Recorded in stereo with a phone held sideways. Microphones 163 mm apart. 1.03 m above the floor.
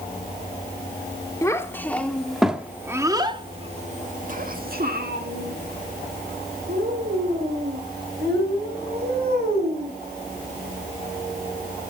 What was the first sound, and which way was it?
A child speaking, 20° left (ahead or behind).